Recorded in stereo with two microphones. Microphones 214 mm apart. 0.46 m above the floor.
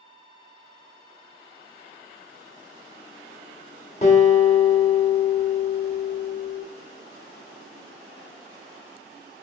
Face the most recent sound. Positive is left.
turn(degrees=35)  # may be behind; listen again after turning